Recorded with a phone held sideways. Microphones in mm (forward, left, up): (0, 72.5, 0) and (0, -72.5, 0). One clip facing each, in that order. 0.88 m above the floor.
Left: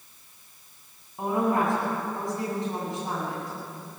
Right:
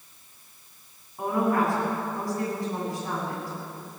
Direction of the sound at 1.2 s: 20° left (ahead or behind).